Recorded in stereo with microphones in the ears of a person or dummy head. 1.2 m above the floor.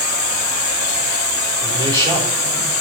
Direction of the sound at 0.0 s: 15° right (ahead or behind).